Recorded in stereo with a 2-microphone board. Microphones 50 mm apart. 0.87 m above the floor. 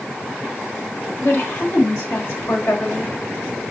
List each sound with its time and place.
1.2 s a woman speaking: 60° left (ahead or behind), 4 m